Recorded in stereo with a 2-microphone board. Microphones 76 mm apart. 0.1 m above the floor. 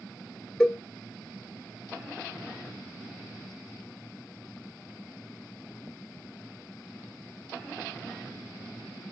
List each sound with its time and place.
0.6 s a cowbell: 10° left (ahead or behind), 1.6 m